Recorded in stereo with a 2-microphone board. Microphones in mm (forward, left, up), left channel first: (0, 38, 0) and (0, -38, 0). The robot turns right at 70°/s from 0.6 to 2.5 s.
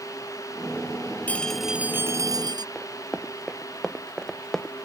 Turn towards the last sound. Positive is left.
turn(degrees=5)  # may be behind; listen again after turning